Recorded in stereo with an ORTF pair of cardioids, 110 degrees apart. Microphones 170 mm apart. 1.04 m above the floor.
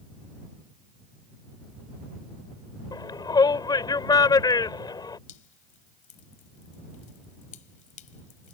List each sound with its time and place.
2.9 s a shout: 25° left
5.3 s dripping: 50° left